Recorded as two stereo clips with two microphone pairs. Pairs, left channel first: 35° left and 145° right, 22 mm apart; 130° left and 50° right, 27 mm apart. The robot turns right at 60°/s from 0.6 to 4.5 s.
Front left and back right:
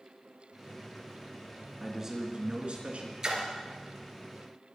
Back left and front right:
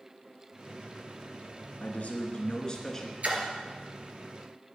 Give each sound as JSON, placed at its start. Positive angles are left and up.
{"t": 1.8, "sound": "a man speaking", "azimuth_deg": 135, "distance_m": 3.0}
{"t": 3.2, "sound": "a splash", "azimuth_deg": -85, "distance_m": 2.5}